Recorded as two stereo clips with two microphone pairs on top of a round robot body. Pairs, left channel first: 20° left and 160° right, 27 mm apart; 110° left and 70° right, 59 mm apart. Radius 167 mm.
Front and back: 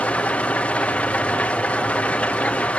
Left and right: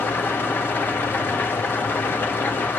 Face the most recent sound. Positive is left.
turn(degrees=55)